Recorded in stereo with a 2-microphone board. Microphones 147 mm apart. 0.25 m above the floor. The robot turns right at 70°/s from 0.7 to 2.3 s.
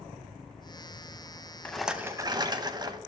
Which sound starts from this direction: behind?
A rattle, at 1.6 s.